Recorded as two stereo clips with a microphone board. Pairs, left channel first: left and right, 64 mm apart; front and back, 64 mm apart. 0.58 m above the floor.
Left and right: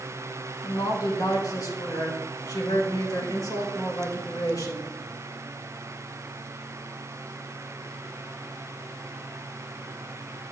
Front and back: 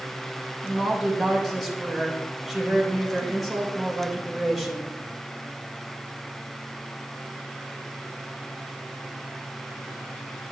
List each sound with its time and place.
0.6 s a woman speaking: 95° left, 3 m